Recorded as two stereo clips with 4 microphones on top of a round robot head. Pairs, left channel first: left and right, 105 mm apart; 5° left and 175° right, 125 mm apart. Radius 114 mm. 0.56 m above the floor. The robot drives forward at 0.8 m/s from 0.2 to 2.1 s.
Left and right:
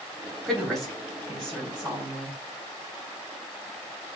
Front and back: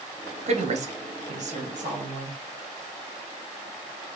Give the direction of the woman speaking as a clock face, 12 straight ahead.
6 o'clock.